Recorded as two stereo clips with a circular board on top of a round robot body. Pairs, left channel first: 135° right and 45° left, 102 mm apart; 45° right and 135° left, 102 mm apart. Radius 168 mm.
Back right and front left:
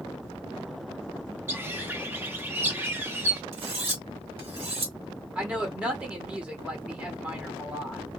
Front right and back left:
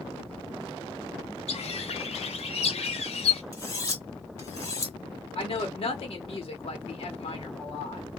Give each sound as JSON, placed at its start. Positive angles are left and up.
{"t": 1.5, "sound": "a bird", "azimuth_deg": -25, "distance_m": 0.6}
{"t": 3.5, "sound": "cutlery clinking", "azimuth_deg": 20, "distance_m": 1.8}
{"t": 5.3, "sound": "a woman speaking", "azimuth_deg": -35, "distance_m": 0.9}